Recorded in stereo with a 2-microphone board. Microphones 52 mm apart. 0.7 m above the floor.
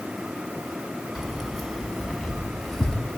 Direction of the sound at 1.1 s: 5° right (ahead or behind).